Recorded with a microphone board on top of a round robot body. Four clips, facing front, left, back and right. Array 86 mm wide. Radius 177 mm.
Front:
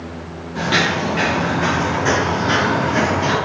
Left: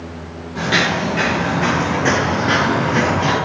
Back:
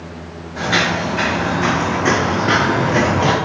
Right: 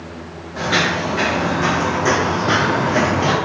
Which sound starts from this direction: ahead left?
Footsteps, at 0.6 s.